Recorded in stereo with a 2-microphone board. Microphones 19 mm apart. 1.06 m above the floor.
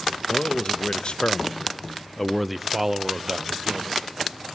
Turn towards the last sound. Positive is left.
turn(degrees=-40)  # may be behind; listen again after turning